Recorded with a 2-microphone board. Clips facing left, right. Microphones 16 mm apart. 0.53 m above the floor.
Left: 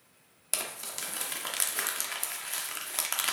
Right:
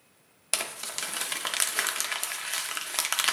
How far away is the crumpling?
About 0.6 m.